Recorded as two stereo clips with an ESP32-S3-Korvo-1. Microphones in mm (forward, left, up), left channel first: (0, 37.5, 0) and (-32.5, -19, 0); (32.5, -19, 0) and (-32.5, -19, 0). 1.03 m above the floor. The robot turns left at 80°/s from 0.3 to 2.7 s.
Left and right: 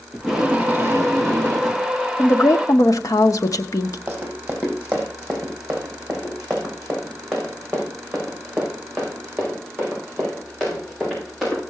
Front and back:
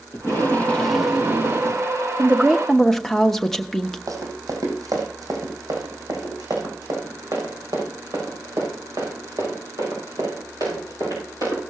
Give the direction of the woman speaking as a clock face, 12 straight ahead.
8 o'clock.